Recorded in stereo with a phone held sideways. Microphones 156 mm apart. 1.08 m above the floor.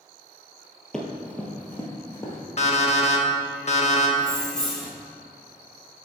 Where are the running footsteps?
5° left (ahead or behind), 1.1 m; by 2.4 s 15° left (ahead or behind), 1.5 m.